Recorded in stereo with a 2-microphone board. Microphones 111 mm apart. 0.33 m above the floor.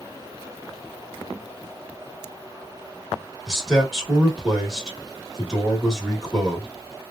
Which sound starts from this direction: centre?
A man speaking, at 3.5 s.